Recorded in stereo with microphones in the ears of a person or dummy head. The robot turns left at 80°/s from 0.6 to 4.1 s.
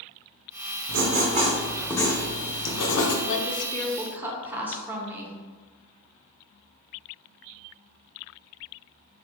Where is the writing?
110° right, 0.7 m; by 3.1 s 70° left, 0.7 m.